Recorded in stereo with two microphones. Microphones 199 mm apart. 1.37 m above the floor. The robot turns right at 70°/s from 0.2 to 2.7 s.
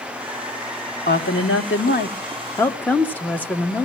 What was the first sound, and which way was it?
A woman speaking, 60° left.